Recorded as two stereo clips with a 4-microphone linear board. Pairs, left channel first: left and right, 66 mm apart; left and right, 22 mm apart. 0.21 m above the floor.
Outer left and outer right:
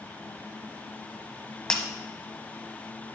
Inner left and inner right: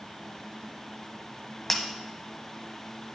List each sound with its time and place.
1.7 s breaking glass: 15° left (ahead or behind), 0.7 m